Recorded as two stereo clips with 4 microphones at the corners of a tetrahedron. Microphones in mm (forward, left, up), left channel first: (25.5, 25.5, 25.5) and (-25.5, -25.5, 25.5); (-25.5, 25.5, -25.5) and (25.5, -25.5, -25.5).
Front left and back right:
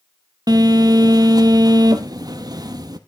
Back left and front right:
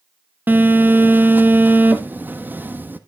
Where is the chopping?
I don't hear chopping.